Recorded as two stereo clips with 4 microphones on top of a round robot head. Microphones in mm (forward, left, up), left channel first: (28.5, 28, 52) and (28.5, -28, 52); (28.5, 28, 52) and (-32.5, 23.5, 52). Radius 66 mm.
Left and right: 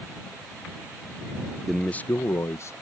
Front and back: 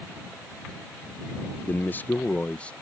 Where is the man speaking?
5° right; by 2.7 s 70° left.